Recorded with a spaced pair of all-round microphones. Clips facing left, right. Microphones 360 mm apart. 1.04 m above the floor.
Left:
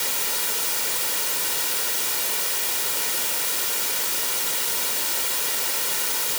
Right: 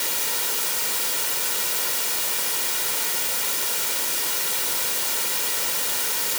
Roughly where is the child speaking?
I don't hear a child speaking.